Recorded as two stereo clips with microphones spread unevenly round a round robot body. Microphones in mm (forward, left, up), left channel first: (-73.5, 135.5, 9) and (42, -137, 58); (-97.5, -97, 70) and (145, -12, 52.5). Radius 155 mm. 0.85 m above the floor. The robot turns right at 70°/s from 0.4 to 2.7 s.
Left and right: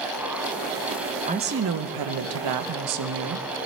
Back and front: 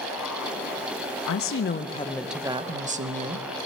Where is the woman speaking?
140° right, 0.9 m; by 3.5 s 40° right, 0.9 m.